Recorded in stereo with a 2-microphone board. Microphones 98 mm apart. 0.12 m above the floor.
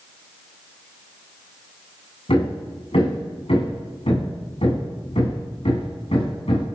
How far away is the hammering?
About 7.5 m.